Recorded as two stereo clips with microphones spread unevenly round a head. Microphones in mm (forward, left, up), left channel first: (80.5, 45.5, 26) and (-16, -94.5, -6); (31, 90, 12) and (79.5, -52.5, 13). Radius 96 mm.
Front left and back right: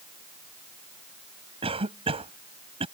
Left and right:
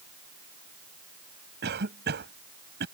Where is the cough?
65° right.